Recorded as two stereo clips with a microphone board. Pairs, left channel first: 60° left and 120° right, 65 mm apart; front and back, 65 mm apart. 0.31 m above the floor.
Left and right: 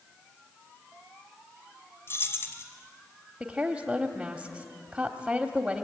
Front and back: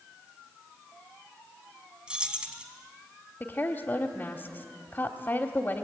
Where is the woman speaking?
50° right, 1.2 m.